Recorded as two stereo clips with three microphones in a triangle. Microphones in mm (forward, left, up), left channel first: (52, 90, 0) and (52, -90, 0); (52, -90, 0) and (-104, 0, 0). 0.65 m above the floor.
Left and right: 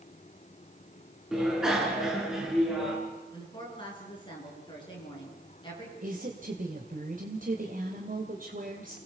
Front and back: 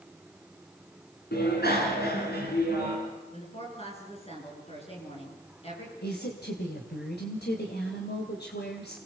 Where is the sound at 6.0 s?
50° right, 2.5 m.